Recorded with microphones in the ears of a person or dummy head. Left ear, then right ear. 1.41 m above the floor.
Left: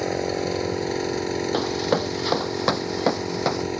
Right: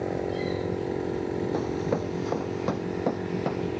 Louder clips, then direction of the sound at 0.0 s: Left 4 dB; 75° left (ahead or behind).